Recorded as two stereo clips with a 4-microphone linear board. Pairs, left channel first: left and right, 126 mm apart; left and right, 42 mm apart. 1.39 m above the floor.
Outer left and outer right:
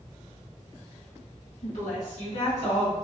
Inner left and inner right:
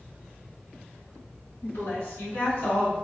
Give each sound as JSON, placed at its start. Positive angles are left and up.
{"t": 1.6, "sound": "a woman speaking", "side_deg": 85, "distance_m": 1.2}